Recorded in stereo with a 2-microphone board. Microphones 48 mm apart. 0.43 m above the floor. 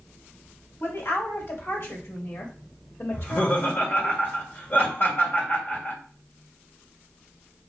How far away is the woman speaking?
About 2 m.